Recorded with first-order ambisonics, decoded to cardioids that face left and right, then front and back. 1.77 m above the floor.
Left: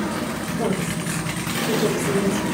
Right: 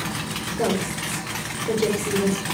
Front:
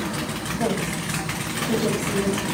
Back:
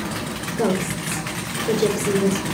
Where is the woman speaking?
160° right, 7.5 m.